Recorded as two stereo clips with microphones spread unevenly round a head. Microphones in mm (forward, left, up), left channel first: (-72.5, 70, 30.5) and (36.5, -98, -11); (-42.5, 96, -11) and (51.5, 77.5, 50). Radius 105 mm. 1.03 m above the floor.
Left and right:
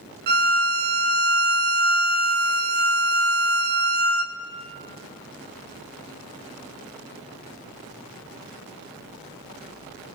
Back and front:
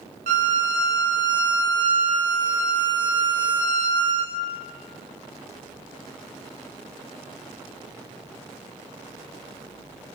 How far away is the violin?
About 1.4 m.